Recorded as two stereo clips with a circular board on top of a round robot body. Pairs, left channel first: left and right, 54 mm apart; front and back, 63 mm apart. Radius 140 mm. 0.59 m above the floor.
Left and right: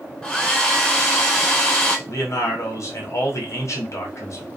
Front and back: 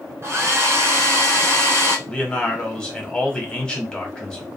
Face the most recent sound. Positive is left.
turn(degrees=75)